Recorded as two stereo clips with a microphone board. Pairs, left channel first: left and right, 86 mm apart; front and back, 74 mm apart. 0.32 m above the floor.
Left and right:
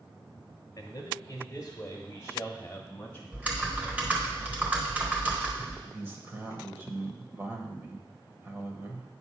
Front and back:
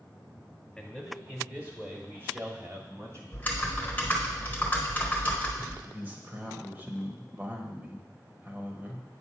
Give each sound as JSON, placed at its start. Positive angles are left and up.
{"t": 0.8, "sound": "a man speaking", "azimuth_deg": 80, "distance_m": 1.4}
{"t": 3.3, "sound": "typing on a keyboard", "azimuth_deg": -35, "distance_m": 1.1}
{"t": 5.8, "sound": "a man speaking", "azimuth_deg": -135, "distance_m": 1.1}